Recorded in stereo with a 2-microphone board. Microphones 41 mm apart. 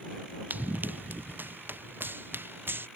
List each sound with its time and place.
0.5 s running footsteps: 45° right (ahead or behind); by 2.9 s 60° right (ahead or behind)